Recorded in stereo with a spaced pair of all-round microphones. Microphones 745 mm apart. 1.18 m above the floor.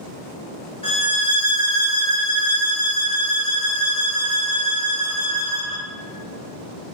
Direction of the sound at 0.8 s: 5° left (ahead or behind).